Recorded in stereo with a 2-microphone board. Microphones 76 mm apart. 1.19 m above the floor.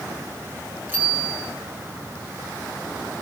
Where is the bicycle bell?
25° right (ahead or behind), 8.5 m.